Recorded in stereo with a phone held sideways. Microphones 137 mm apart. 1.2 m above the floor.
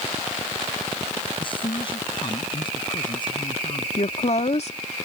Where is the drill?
I don't hear a drill.